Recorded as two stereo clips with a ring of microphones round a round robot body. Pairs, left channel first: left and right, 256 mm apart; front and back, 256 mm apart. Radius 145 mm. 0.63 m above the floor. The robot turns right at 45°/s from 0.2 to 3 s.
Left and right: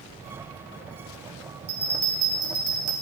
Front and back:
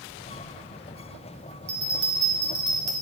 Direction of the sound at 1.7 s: 140° right.